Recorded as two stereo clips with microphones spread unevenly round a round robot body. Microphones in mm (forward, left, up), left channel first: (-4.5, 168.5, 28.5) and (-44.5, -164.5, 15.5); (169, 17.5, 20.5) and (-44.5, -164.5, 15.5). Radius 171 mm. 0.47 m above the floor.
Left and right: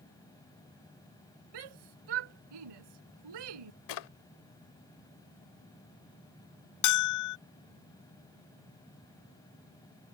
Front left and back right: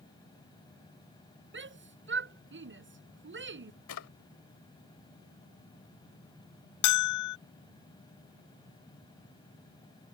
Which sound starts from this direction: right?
A shout, at 1.5 s.